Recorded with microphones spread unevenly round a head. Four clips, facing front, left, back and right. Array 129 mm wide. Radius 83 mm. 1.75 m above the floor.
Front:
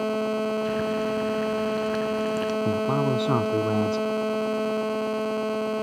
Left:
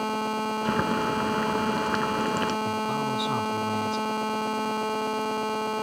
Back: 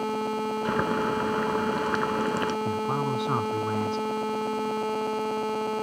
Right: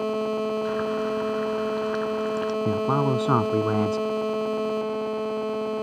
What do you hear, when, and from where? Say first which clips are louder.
0.7 s boiling: even, even; 145° left
2.6 s a man speaking: right 5 dB, front 4 dB; 70° right